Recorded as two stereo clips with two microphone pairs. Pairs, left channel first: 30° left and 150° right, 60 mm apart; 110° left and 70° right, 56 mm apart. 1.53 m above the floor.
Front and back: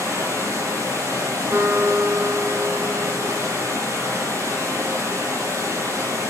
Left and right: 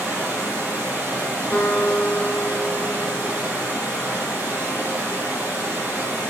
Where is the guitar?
160° left, 1.9 m.